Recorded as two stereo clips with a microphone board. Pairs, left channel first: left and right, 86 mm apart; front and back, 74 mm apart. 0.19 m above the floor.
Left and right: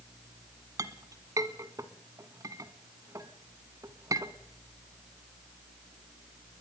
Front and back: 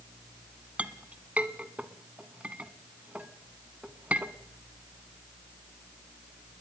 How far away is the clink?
About 1.1 m.